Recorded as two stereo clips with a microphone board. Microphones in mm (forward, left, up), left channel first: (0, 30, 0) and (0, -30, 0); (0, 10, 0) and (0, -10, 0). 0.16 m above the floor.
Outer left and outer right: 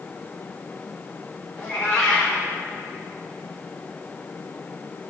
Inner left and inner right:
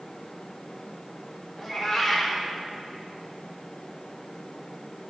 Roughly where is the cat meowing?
Centre.